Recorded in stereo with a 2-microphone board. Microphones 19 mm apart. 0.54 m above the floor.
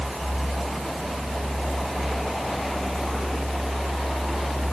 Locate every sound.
Only background noise.